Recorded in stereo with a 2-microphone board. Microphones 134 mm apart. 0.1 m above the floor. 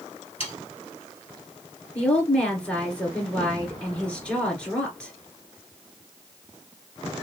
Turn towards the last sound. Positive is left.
turn(degrees=10)  # may be behind; listen again after turning